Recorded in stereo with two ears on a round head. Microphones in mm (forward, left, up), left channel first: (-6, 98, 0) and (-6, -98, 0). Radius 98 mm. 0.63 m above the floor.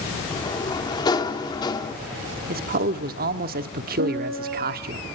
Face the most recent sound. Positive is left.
turn(degrees=-60)  # may be behind; listen again after turning